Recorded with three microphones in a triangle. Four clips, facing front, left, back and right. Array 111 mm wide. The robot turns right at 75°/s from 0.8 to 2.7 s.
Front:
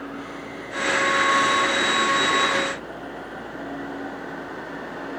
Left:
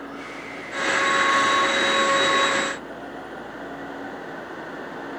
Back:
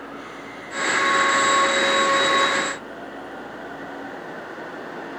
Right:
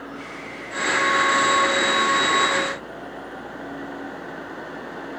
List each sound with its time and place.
Only background noise.